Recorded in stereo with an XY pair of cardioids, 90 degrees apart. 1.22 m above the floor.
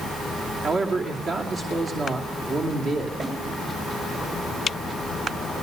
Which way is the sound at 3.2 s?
55° right.